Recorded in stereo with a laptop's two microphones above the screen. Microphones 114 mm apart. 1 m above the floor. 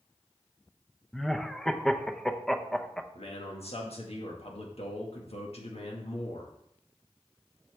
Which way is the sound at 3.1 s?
70° left (ahead or behind).